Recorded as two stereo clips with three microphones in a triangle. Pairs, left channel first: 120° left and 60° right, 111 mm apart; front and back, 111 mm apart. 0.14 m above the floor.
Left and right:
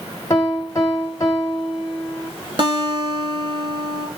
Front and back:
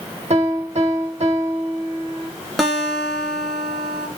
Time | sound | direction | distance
0.3 | a piano | 175° right | 1.3 m
2.6 | a guitar | 90° right | 0.8 m